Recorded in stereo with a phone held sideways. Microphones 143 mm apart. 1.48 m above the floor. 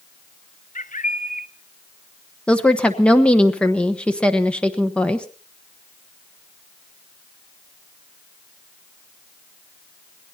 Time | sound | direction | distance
0.8 | a bird | 65° left (ahead or behind) | 0.8 m
2.5 | a woman speaking | 10° left (ahead or behind) | 1.1 m